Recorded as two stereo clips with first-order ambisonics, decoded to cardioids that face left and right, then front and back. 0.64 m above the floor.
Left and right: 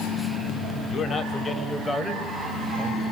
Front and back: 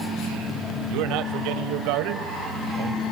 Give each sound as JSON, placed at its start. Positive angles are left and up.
{"t": 0.9, "sound": "a man speaking", "azimuth_deg": 155, "distance_m": 3.0}